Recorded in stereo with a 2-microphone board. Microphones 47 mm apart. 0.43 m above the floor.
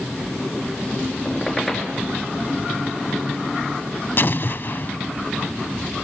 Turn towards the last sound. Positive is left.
turn(degrees=50)  # may be behind; listen again after turning